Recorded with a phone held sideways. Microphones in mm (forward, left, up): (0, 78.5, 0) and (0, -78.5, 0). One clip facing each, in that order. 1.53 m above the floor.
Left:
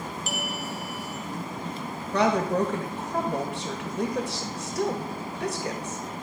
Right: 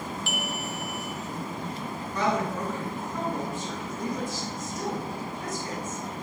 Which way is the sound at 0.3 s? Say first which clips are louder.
Even; 40° left (ahead or behind).